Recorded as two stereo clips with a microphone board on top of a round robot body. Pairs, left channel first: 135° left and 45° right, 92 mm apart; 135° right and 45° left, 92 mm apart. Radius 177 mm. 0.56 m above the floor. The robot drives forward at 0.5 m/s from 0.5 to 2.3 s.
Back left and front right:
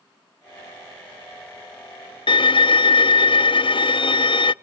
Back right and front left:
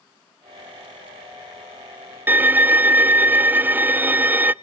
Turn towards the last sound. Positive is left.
turn(degrees=115)